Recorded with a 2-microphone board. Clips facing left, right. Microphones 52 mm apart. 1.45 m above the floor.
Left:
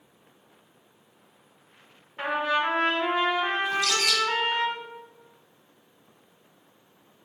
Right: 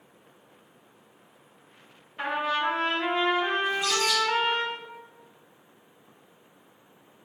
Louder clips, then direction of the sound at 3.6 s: Even; 70° left (ahead or behind).